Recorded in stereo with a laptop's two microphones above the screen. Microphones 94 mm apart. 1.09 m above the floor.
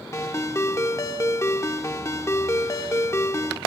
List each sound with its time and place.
0.1 s a ringtone: 35° left (ahead or behind), 0.9 m